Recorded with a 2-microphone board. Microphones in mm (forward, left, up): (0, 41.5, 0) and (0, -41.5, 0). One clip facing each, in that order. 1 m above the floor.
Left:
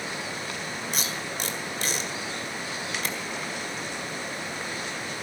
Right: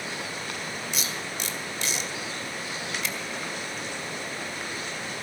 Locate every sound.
0.9 s tape being pulled: 45° left (ahead or behind), 1.8 m